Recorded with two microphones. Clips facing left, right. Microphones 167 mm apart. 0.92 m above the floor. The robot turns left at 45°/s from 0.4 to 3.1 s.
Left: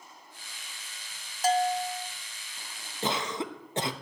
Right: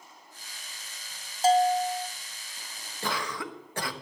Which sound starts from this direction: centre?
A cough, at 3.0 s.